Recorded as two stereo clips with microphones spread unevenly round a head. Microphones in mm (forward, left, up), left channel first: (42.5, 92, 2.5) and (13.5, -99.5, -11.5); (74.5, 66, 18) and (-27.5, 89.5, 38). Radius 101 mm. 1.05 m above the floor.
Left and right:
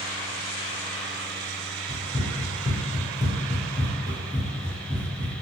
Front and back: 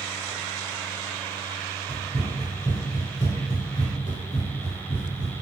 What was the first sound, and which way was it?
Running footsteps, 155° left.